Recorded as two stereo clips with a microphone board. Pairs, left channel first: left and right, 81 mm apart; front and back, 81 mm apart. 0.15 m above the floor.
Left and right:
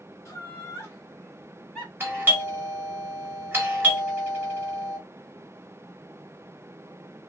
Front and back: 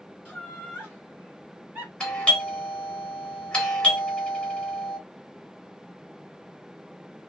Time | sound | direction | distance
0.2 | laughter | 95° left | 1.9 m
2.0 | a doorbell | 65° right | 1.6 m